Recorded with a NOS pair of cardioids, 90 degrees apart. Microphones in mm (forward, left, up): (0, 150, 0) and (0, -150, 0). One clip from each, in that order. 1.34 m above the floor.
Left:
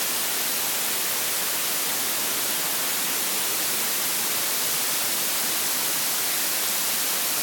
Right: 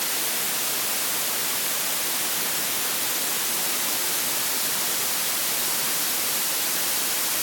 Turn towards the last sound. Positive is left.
No sound to turn to.